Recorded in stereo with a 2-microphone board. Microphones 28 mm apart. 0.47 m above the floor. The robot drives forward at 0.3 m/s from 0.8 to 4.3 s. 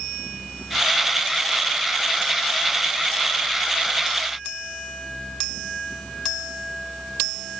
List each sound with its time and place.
Only background noise.